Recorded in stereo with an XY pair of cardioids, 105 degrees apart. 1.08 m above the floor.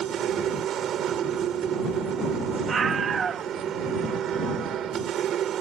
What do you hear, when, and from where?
0.0 s a machine running: 70° right
2.7 s a scream: 50° right